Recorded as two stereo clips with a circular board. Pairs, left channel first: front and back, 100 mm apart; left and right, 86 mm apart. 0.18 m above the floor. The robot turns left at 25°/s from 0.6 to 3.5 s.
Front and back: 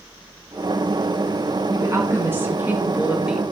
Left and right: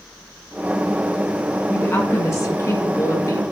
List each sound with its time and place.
1.7 s a woman speaking: 140° left, 1.7 m; by 3.5 s 95° left, 1.7 m